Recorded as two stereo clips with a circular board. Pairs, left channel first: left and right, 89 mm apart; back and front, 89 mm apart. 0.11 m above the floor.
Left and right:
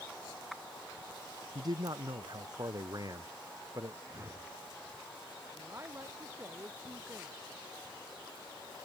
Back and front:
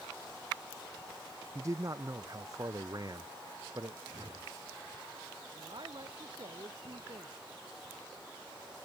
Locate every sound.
1.6 s a man speaking: 55° right; by 4.0 s 40° right
4.1 s a whoosh: 30° right
5.5 s a woman speaking: 30° right